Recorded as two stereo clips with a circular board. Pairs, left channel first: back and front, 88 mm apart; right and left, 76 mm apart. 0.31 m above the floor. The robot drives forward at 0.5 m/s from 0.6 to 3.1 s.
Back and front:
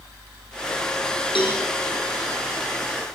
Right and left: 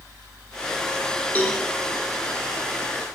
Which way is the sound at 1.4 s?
160° right.